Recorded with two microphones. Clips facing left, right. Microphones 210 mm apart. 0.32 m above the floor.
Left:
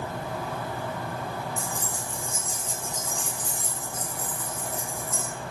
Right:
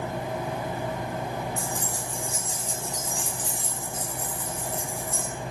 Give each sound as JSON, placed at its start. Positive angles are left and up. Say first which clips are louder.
{"t": 1.6, "sound": "keys jangling", "louder": "right 2 dB", "side_deg": -70, "distance_m": 4.0}